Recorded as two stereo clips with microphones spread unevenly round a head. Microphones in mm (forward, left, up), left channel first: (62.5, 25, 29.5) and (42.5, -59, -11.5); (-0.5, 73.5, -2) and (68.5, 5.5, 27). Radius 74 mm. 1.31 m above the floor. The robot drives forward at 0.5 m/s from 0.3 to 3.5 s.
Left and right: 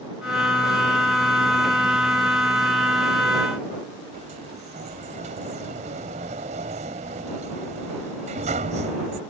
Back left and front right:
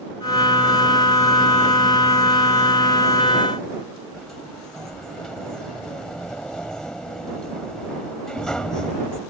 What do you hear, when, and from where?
4.1 s a sliding door: 130° right